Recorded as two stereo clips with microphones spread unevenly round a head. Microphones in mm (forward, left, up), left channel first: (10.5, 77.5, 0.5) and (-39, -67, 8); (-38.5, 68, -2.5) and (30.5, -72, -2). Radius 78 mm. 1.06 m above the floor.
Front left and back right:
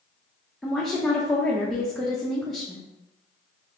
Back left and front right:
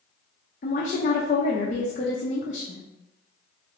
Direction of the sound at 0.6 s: 155° left.